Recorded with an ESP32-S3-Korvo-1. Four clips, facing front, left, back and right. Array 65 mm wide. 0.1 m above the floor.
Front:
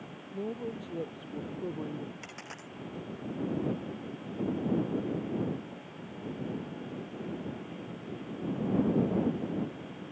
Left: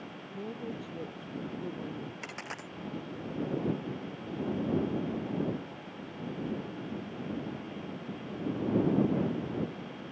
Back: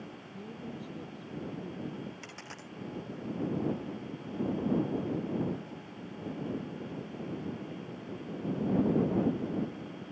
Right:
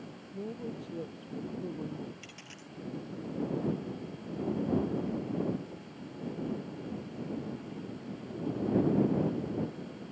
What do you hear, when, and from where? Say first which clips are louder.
0.3 s a woman speaking: even, front 8 dB; 5° right
2.2 s a dropped coin: left 8 dB, front 1 dB; 85° left